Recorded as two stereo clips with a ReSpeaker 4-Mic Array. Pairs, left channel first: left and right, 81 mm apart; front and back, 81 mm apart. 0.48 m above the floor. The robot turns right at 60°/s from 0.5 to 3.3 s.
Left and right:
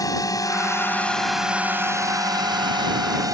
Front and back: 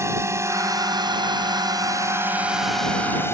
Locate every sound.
0.0 s a drone: 130° left; by 3.3 s 55° right